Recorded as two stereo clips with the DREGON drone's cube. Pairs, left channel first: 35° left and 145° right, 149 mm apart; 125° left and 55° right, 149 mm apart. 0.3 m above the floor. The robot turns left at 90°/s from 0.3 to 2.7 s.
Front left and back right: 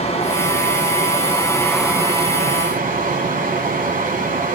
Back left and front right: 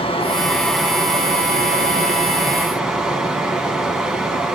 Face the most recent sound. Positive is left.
turn(degrees=-140)